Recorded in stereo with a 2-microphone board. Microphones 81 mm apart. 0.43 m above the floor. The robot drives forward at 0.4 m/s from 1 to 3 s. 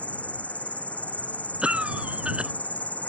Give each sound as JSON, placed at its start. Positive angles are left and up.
{"t": 0.0, "sound": "an insect", "side_deg": 20}
{"t": 1.6, "sound": "a cough", "side_deg": -15}